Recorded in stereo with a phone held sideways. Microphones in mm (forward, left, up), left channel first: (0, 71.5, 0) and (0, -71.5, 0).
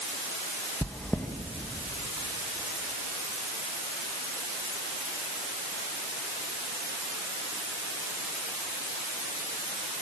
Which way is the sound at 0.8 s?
15° left (ahead or behind).